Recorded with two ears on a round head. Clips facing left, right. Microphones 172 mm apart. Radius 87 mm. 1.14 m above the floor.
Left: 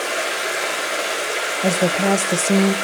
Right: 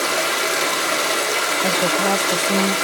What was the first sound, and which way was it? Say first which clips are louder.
Running water: right 2 dB; 65° right (ahead or behind).